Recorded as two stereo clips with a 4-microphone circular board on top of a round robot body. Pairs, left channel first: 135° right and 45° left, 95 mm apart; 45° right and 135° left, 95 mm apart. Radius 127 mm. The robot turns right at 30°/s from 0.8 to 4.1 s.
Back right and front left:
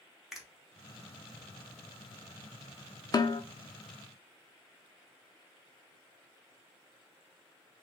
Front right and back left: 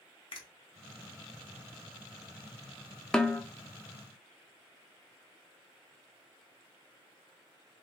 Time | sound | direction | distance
0.3 | a finger snap | 40° right | 1.1 m
3.1 | a snare drum | 125° right | 0.5 m